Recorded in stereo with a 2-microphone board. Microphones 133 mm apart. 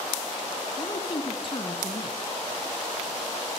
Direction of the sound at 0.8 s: 35° left (ahead or behind).